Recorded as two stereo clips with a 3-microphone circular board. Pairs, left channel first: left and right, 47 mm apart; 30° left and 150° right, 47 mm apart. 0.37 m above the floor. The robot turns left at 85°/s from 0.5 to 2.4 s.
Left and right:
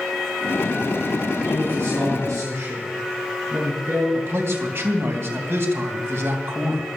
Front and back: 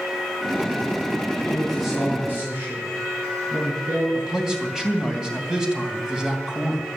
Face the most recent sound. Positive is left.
turn(degrees=-75)